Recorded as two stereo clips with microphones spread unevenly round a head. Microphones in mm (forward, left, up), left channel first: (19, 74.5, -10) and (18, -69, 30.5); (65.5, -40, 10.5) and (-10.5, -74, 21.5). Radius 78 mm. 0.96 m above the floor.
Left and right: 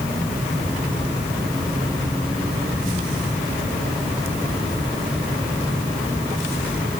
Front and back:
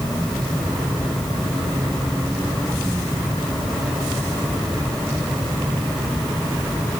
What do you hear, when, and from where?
Only background noise.